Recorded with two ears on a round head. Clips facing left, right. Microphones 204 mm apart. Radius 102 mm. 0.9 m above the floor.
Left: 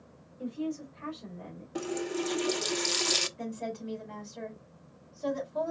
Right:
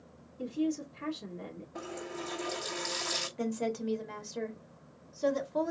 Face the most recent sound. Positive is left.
turn(degrees=-70)  # may be behind; listen again after turning